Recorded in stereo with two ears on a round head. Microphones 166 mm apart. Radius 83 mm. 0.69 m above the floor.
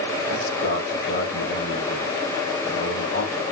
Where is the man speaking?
50° left (ahead or behind), 6 m.